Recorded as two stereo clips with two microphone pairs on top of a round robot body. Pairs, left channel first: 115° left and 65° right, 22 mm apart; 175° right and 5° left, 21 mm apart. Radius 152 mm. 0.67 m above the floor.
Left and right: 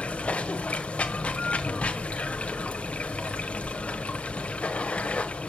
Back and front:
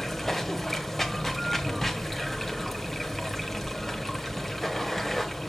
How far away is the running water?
About 1.3 m.